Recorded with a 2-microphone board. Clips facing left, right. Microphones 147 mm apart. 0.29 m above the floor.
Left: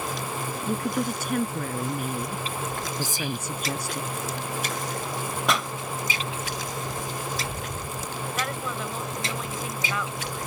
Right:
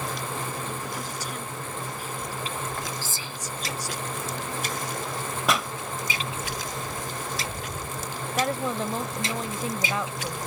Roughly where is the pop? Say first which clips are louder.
Right 1 dB; centre.